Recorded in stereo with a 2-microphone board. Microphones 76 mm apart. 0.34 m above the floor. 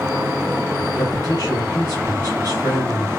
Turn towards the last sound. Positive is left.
turn(degrees=45)  # may be behind; listen again after turning